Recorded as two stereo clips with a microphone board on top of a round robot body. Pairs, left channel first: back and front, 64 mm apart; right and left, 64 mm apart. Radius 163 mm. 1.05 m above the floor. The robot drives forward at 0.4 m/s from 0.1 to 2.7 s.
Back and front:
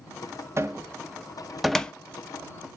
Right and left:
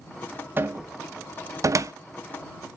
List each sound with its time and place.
0.6 s a cupboard door: 35° left, 0.7 m; by 1.9 s 110° left, 0.5 m